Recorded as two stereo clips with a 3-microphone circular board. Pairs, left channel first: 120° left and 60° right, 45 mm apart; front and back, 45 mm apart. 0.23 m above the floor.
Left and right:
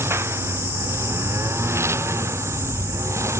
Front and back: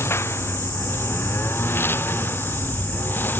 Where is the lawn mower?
35° right; by 3.4 s 45° right.